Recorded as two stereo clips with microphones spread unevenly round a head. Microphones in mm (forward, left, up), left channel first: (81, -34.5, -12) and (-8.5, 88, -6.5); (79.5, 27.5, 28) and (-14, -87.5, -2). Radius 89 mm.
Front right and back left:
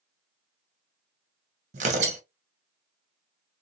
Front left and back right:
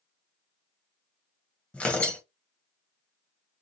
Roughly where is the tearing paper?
Behind left.